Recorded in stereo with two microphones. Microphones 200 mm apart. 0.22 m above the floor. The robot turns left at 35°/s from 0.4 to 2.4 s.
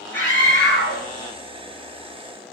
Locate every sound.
0.1 s a scream: 10° left (ahead or behind), 4 m; by 1.0 s 10° right (ahead or behind), 4 m